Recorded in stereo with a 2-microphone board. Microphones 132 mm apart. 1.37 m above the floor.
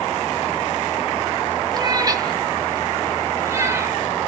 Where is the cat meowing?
30° right (ahead or behind), 1.6 m; by 4.0 s 20° right (ahead or behind), 2.5 m.